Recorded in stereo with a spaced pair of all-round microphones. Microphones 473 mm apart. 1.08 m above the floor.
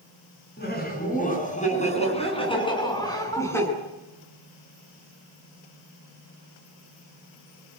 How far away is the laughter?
About 9 m.